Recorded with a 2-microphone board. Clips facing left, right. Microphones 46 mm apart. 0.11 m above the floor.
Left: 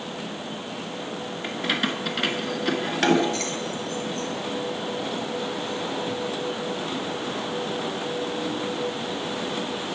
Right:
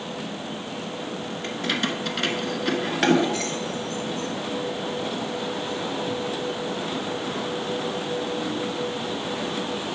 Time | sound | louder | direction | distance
1.4 | keys jangling | left 1 dB | 10° left (ahead or behind) | 0.9 m